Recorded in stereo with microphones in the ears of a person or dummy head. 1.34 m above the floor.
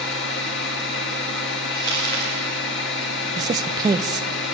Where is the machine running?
75° left (ahead or behind), 2.5 m.